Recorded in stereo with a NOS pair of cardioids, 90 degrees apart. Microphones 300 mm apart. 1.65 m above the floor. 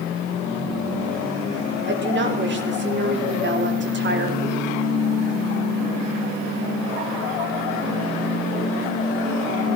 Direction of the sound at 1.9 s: 40° right.